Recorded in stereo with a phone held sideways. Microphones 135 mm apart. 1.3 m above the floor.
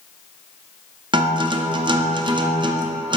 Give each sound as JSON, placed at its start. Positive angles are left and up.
{"t": 1.1, "sound": "a guitar", "side_deg": -35, "distance_m": 0.5}